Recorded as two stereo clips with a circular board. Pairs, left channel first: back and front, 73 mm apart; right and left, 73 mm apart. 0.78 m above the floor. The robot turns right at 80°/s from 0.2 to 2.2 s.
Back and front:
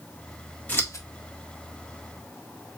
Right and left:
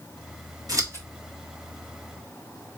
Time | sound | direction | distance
0.7 | scissors | 115° left | 1.5 m